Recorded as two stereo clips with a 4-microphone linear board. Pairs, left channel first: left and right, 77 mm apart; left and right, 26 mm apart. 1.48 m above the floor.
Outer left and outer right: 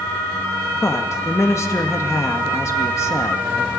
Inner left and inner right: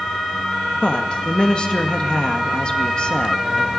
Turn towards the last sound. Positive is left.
turn(degrees=40)  # may be behind; listen again after turning